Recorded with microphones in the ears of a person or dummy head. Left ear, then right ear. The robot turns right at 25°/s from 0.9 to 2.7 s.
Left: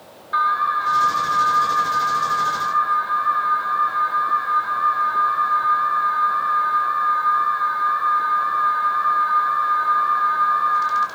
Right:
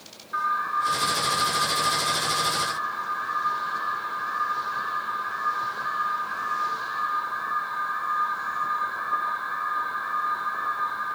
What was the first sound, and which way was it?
An alarm, 40° left.